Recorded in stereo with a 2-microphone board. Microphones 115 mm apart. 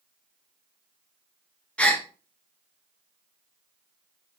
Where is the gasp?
10° left (ahead or behind), 1.2 m.